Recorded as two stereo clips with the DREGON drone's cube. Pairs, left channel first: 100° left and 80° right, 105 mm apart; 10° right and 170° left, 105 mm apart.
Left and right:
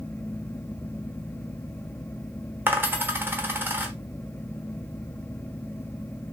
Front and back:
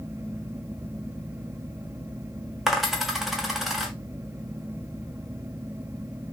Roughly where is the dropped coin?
Right.